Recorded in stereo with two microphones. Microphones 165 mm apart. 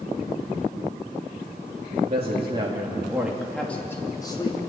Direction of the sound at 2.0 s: 40° right (ahead or behind).